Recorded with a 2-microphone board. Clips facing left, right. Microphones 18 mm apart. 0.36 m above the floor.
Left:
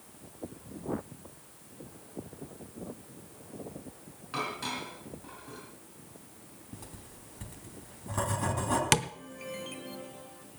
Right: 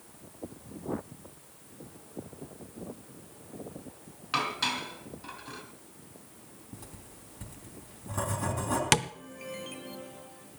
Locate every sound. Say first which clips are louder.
4.3 s dishes clattering: right 5 dB; 50° right (ahead or behind), 3 m
6.7 s writing: left 1 dB; 15° left (ahead or behind), 3.5 m
8.9 s tapping: right 3 dB; 5° right (ahead or behind), 0.6 m